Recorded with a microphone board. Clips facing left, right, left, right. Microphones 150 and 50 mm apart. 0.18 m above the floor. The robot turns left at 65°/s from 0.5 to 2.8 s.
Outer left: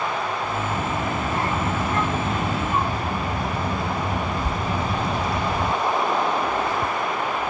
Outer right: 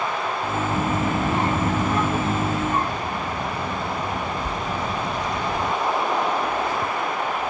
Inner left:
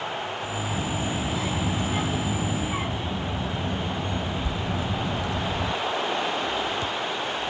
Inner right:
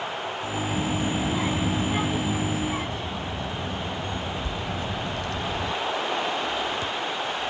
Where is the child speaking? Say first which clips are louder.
Outer right 3 dB, inner right 3 dB; 25° right (ahead or behind), 0.6 m; by 5.7 s 10° left (ahead or behind), 0.6 m.